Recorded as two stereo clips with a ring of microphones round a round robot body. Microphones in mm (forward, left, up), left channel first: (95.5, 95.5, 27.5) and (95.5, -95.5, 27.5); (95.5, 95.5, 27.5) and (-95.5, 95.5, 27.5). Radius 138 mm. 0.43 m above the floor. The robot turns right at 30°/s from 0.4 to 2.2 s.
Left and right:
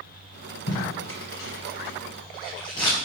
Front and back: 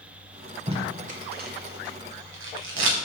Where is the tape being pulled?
115° left, 1.0 m; by 2.9 s 165° left, 1.0 m.